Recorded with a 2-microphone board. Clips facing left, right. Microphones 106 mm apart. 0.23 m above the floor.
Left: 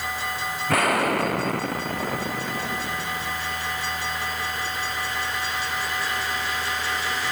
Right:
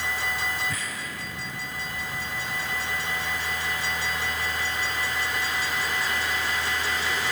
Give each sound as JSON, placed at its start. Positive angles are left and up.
{"t": 0.7, "sound": "an explosion", "side_deg": 70}